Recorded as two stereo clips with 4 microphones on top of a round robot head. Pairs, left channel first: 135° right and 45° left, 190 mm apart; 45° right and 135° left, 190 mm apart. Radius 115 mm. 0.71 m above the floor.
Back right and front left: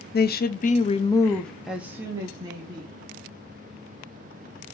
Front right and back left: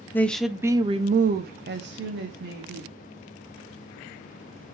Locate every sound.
0.1 s a woman speaking: 125° right, 0.7 m; by 3.0 s 115° left, 1.3 m